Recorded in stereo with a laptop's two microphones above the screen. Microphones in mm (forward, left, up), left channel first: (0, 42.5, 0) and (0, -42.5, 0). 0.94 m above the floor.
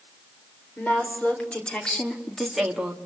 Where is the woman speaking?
20° left (ahead or behind), 4 m; by 3.0 s 15° right (ahead or behind), 1.6 m.